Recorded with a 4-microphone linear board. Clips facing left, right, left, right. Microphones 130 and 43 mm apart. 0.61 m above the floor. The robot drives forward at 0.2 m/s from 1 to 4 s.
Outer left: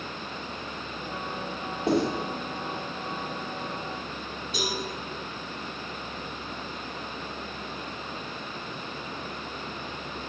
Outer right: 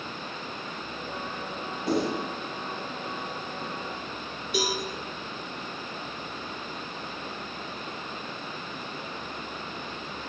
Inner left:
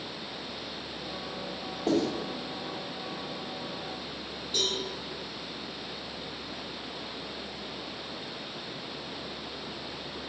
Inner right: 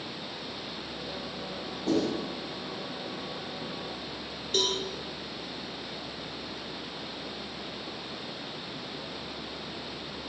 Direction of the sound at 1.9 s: 55° left (ahead or behind).